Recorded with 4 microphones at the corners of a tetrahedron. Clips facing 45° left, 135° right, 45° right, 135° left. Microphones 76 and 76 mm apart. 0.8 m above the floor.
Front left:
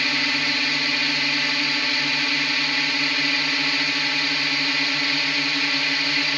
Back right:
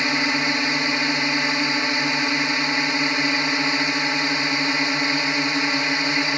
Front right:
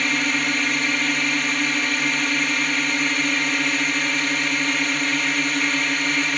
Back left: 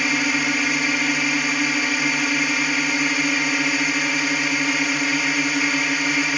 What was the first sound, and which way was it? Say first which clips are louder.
A drone: back right 3 dB, back left 1 dB; 155° right.